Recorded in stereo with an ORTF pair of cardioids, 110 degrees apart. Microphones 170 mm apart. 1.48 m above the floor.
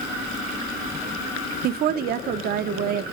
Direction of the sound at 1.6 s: 65° right.